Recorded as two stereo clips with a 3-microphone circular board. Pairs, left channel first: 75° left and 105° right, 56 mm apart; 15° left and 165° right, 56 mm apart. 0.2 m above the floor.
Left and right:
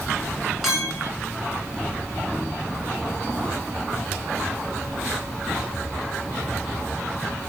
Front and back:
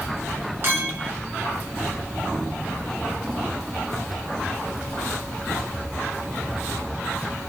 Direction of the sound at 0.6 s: 165° left.